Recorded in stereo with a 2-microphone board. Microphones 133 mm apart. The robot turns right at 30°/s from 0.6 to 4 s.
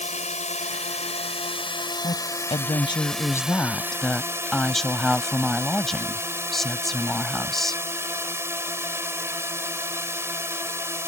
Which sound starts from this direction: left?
A drone, at 0.0 s.